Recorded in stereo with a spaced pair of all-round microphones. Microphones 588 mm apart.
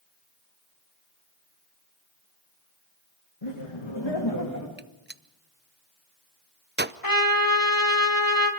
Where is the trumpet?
35° left (ahead or behind), 2.0 m.